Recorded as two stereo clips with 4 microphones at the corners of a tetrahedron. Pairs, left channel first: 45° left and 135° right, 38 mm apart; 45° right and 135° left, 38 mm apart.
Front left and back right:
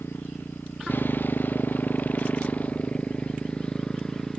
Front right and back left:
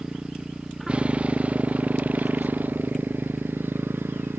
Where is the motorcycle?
65° left; by 4.4 s 115° left.